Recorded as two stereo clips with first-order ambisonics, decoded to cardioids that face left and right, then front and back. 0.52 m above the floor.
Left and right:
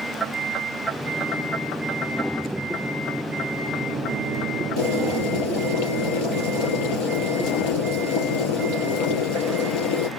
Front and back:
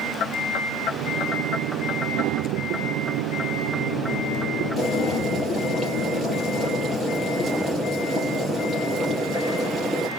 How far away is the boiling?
About 3.5 m.